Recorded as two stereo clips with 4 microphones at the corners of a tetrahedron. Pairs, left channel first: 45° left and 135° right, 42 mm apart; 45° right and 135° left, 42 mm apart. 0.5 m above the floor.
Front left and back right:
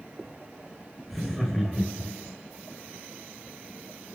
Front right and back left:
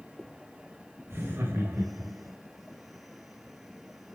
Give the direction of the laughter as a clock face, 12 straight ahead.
7 o'clock.